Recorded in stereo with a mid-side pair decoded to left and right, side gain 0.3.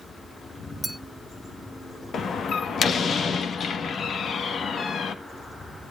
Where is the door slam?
70° left, 1.2 m.